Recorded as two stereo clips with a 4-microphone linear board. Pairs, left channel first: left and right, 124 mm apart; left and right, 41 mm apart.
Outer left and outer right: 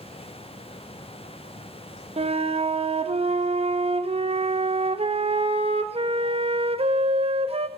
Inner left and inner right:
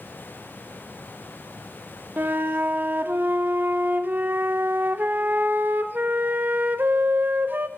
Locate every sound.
2.2 s a flute: 55° right (ahead or behind), 0.6 m